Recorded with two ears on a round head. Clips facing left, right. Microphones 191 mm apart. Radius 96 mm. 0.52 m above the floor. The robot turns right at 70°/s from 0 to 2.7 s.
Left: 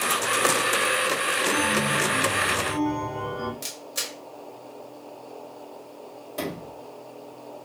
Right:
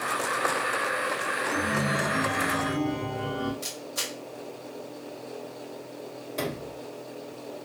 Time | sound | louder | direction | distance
1.5 | a chime | left 2 dB | 50° right | 1.6 m
3.6 | a camera shutter | right 2 dB | 25° left (ahead or behind) | 1.1 m
6.4 | a sliding door | left 1 dB | 5° left (ahead or behind) | 2 m